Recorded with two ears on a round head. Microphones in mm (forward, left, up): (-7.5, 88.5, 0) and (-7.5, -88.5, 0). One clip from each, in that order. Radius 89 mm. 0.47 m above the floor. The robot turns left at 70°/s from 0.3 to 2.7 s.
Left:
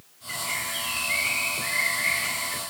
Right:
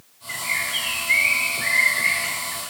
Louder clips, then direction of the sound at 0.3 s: Right 5 dB; 25° right.